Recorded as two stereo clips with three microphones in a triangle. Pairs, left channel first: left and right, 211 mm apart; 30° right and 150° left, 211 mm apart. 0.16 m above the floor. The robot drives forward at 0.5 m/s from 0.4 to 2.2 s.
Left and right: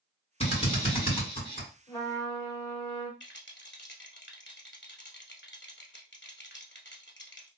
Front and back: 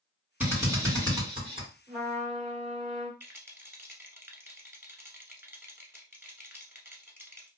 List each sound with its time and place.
0.4 s a drill: 75° left, 1.5 m; by 1.7 s 125° left, 1.6 m
1.9 s a trumpet: 155° left, 1.8 m; by 3.1 s 160° left, 1.9 m
3.2 s a rattle: 75° left, 0.6 m